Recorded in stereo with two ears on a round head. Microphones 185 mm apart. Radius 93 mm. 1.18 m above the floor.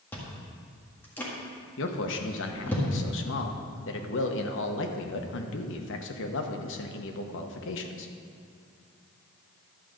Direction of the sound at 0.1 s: 10° left (ahead or behind).